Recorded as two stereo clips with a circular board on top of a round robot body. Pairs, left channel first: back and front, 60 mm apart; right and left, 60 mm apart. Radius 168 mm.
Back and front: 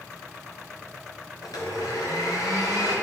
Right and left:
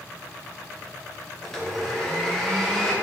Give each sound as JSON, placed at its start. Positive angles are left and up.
{"t": 1.4, "sound": "a blender", "azimuth_deg": -175, "distance_m": 1.8}